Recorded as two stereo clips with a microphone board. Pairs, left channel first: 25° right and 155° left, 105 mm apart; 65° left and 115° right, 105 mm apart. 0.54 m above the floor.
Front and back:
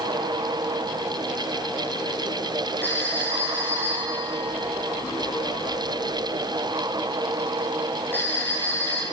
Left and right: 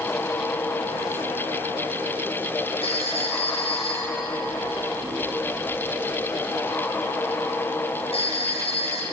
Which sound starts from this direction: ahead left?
A phone ringing, at 2.8 s.